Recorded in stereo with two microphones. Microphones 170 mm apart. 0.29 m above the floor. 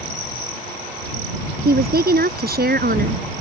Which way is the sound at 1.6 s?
70° right (ahead or behind).